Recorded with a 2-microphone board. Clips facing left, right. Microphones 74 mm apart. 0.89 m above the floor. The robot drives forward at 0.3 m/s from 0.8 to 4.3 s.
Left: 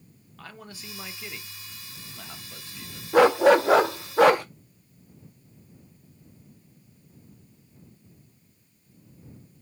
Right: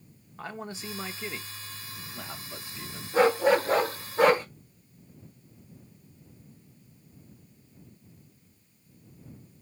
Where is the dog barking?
70° left (ahead or behind), 0.7 m; by 4.5 s 65° left (ahead or behind), 0.7 m.